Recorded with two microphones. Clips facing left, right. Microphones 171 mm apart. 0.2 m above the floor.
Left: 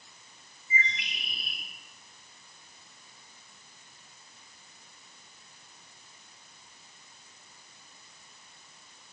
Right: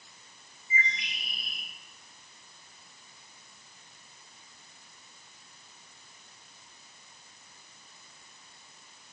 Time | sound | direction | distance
0.7 | a bird | 35° left (ahead or behind) | 1.8 m